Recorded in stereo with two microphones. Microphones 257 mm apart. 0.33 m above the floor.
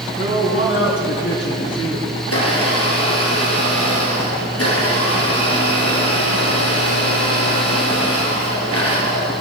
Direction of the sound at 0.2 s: 55° left (ahead or behind).